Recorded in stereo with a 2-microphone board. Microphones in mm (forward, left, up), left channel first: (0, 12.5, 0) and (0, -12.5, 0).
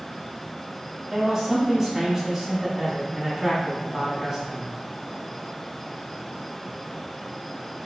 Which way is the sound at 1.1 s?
10° right (ahead or behind).